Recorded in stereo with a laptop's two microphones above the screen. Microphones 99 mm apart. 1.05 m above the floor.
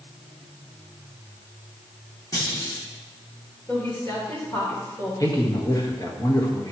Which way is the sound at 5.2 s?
40° left (ahead or behind).